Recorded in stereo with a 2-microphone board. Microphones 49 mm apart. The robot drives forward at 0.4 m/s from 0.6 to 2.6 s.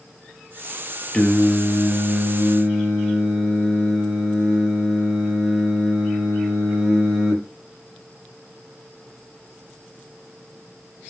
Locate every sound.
1.1 s singing: 15° left (ahead or behind), 0.7 m; by 7.4 s 10° left (ahead or behind), 1.2 m